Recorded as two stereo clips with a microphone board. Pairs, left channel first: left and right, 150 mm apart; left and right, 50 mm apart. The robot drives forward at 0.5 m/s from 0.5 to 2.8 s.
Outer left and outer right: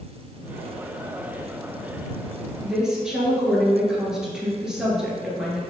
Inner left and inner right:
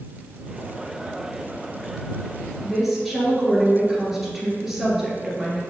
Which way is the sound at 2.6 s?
5° right (ahead or behind).